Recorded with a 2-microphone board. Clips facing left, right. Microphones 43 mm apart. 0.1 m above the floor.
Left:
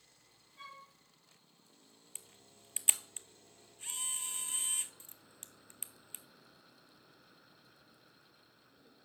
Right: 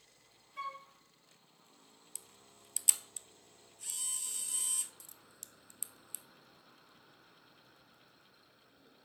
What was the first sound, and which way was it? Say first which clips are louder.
A flute: right 9 dB; 80° right.